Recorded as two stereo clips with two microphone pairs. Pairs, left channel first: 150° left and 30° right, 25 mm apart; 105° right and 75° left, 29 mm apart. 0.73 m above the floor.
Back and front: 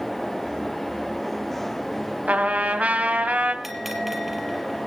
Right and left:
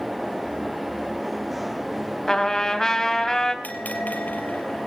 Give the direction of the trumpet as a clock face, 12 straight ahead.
1 o'clock.